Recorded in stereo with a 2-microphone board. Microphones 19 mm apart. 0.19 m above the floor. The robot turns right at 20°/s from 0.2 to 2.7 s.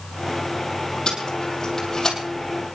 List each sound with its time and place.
1.1 s tape being pulled: 45° left (ahead or behind), 5 m; by 2.2 s 25° left (ahead or behind), 5 m